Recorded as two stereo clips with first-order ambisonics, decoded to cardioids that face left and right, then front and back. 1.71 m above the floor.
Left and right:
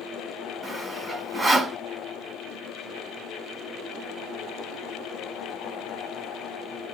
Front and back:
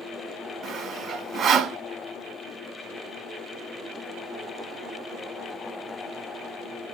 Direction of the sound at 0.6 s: 160° right.